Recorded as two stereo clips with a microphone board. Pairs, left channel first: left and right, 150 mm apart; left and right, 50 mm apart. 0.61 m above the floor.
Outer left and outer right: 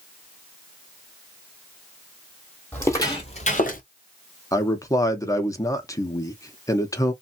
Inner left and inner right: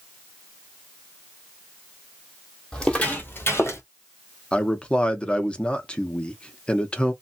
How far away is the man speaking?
About 0.7 m.